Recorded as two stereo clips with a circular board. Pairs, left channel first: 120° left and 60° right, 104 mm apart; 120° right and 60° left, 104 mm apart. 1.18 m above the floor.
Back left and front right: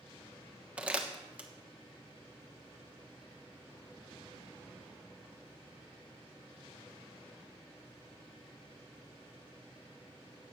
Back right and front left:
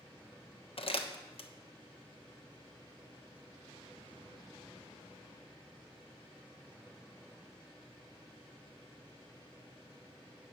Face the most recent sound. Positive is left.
turn(degrees=-140)